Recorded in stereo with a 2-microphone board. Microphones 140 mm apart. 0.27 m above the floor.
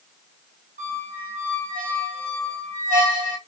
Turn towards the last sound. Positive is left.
turn(degrees=-80)